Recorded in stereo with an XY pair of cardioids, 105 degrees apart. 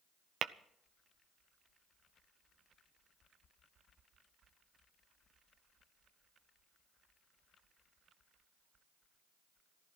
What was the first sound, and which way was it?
Tapping, 55° right.